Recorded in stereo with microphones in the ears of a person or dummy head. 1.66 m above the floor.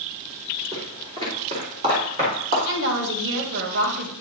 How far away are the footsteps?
About 4.5 m.